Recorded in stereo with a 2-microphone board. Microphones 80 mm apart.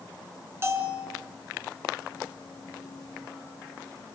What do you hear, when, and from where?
0.6 s a bell: 35° right (ahead or behind), 2.5 m